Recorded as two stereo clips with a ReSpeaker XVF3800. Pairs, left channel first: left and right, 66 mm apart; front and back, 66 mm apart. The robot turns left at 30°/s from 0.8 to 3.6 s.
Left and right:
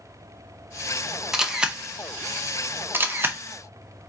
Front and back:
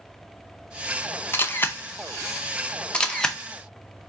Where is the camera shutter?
15° right, 0.6 m; by 3.4 s 75° right, 0.6 m.